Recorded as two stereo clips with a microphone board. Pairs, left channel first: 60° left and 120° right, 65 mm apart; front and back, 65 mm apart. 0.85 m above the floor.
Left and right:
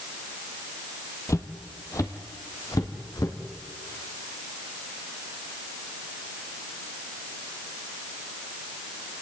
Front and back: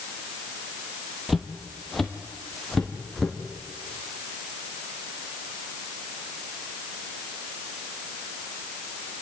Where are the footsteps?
95° left, 1.7 m; by 3.4 s 85° left, 3 m.